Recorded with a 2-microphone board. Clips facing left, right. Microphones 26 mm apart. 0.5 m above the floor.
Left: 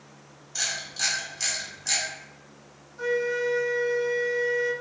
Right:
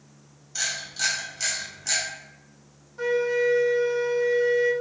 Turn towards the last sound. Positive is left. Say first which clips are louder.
# right 3 dB
turn(degrees=-30)  # may be behind; listen again after turning